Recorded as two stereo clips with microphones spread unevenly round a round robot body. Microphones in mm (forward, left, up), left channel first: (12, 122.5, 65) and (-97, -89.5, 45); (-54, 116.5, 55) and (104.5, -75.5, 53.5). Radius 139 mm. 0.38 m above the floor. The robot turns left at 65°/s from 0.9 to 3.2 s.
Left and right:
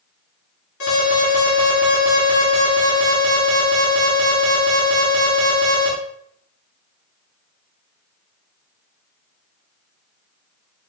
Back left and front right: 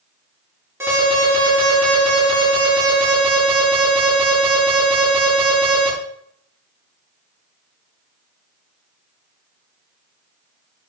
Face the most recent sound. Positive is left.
turn(degrees=-120)